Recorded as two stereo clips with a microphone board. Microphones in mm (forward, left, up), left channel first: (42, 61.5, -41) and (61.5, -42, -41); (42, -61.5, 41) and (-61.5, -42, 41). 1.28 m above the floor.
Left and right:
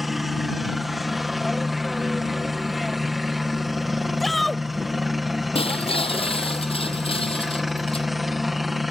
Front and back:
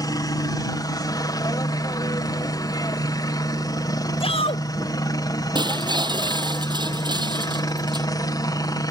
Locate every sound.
0.0 s a helicopter: 10° left
4.2 s a shout: 15° left
5.5 s breaking glass: 125° left